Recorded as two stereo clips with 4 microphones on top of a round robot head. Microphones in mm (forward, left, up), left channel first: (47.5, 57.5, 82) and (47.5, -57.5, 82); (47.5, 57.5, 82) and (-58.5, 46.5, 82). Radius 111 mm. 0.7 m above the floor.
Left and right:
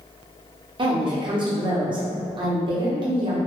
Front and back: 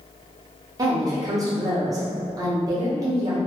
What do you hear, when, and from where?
0.8 s a woman speaking: 125° right, 0.8 m